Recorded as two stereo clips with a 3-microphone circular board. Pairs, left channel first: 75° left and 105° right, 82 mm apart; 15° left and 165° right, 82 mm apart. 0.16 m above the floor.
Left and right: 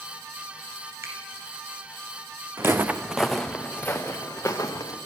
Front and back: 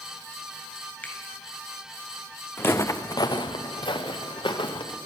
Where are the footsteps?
45° right, 0.8 m; by 5.0 s 30° left, 1.5 m.